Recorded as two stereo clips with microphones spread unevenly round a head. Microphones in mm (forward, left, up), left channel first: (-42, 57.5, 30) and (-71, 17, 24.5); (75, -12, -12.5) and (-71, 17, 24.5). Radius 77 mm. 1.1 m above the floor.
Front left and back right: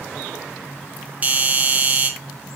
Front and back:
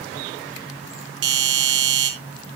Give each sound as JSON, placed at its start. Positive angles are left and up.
{"t": 1.2, "sound": "a doorbell", "azimuth_deg": 180, "distance_m": 2.5}